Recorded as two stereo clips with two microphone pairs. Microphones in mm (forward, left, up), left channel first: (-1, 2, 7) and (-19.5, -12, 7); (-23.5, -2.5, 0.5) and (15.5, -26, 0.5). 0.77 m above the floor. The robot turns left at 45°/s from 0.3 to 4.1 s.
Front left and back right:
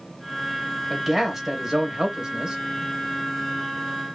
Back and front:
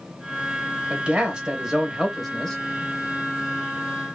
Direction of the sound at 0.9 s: 60° right.